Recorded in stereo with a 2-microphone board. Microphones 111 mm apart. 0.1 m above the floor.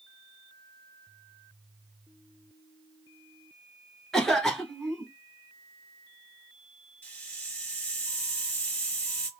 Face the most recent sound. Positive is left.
turn(degrees=15)  # may be behind; listen again after turning